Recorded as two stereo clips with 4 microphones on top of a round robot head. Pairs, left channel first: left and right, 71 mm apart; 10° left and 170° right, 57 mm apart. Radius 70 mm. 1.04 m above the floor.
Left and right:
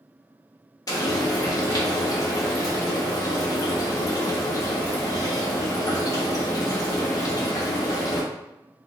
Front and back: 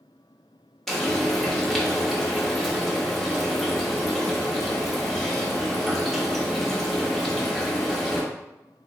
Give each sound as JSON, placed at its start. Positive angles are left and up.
{"t": 0.9, "sound": "frying", "azimuth_deg": 95, "distance_m": 1.1}